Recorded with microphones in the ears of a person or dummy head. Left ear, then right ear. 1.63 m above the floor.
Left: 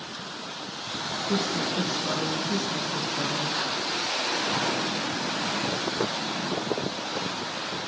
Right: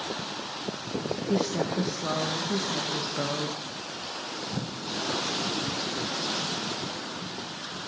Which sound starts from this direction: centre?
A woman speaking, at 1.3 s.